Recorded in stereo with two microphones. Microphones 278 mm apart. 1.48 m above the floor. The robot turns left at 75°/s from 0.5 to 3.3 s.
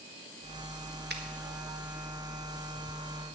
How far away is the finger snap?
About 1.5 m.